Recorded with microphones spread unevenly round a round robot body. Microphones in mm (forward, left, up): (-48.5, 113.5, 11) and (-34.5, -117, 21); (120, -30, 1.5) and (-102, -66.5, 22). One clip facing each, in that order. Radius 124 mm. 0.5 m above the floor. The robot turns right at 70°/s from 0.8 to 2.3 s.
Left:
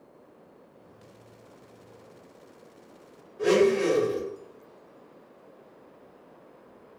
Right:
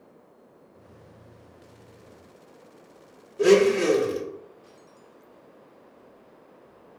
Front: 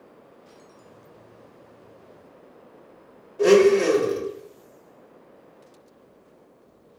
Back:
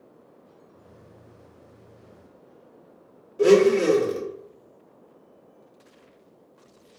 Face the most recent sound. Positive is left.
turn(degrees=-95)